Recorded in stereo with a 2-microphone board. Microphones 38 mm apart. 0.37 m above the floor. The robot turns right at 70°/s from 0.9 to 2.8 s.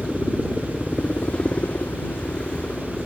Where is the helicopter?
25° left; by 3.1 s 160° left.